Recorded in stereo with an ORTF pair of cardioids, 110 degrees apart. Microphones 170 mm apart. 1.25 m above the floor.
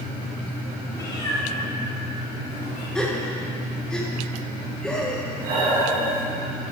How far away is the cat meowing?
About 1.6 m.